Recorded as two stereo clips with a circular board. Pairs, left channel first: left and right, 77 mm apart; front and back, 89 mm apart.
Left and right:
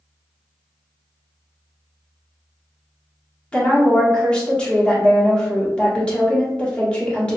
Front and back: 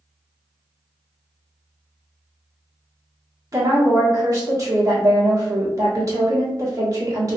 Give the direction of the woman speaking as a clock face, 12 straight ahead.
7 o'clock.